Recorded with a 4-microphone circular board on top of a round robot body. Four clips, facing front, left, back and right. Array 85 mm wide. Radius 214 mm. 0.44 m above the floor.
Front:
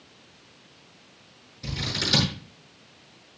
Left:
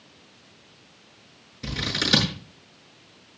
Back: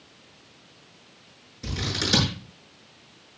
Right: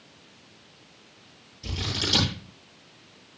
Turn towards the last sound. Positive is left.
turn(degrees=105)